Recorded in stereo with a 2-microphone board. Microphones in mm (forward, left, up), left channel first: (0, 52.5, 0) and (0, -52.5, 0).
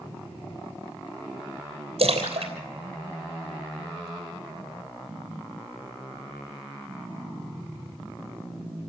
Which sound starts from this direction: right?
A splash, at 2.0 s.